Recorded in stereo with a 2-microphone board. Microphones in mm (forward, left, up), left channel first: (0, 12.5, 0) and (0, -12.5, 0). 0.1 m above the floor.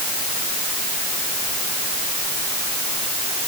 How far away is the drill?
No drill in this recording.